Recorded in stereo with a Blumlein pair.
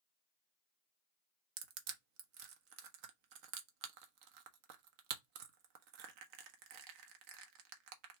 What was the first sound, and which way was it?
Crushing, 45° right.